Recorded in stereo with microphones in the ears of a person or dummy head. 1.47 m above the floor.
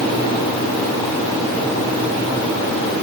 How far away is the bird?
I don't hear a bird.